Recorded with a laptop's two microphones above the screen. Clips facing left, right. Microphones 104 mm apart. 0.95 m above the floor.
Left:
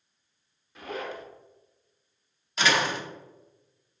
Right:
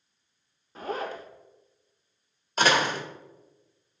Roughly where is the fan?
No fan in this recording.